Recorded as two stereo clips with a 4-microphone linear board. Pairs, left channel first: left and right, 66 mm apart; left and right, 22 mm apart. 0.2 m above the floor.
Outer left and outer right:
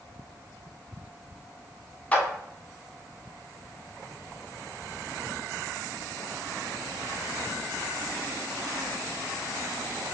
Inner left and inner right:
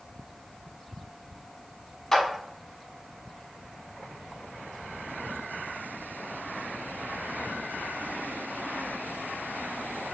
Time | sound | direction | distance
2.1 | a clap | 20° left (ahead or behind) | 1.1 m